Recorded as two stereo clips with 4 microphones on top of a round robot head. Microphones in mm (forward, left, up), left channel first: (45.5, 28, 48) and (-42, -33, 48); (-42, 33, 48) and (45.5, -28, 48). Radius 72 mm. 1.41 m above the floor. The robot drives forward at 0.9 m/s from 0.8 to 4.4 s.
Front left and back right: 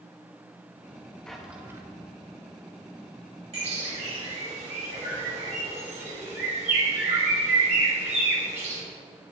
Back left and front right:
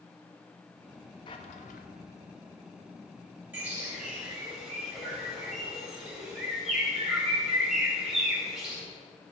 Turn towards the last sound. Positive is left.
turn(degrees=-120)